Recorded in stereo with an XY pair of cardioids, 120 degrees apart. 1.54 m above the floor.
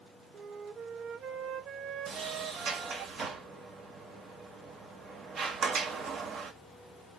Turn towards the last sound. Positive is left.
turn(degrees=-45)